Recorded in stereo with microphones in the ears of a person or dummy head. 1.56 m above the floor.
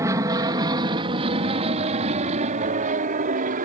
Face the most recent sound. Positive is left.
turn(degrees=-45)  # may be behind; listen again after turning